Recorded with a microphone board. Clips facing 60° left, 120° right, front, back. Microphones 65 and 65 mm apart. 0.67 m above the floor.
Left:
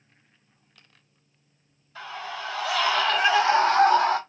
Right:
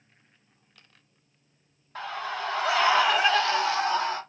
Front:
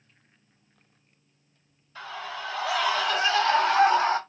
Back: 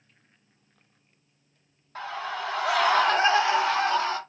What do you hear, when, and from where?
1.9 s a scream: 155° right, 1.8 m; by 4.2 s 65° left, 1.2 m